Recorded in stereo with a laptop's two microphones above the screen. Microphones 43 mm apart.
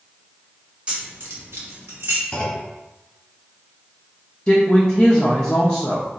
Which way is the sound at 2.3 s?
25° left (ahead or behind).